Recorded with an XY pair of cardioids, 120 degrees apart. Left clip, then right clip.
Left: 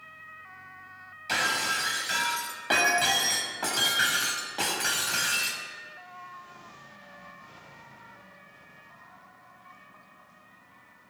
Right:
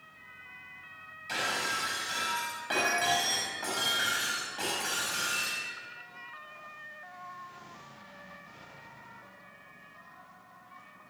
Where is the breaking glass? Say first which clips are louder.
Left 5 dB; 40° left, 5.5 m.